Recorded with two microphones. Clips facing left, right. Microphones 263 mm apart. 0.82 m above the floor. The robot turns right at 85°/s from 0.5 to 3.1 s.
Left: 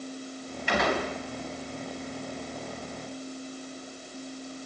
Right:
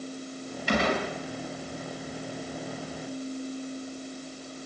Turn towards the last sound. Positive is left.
turn(degrees=160)